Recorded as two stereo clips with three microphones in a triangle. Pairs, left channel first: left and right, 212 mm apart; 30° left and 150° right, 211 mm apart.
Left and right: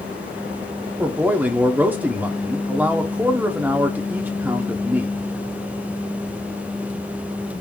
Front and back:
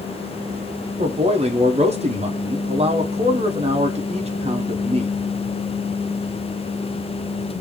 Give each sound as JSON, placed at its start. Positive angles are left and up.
{"t": 1.0, "sound": "a man speaking", "azimuth_deg": -165, "distance_m": 0.6}